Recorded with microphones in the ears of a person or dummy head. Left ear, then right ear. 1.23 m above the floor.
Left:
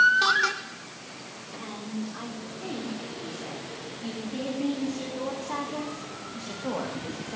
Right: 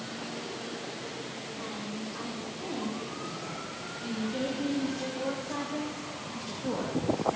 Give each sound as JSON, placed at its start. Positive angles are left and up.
{"t": 1.6, "sound": "a woman speaking", "side_deg": 80, "distance_m": 5.0}